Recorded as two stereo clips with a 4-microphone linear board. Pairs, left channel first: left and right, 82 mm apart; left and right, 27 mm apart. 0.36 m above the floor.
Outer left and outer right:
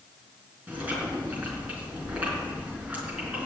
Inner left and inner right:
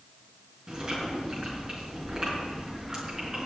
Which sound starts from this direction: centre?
Chewing, at 0.7 s.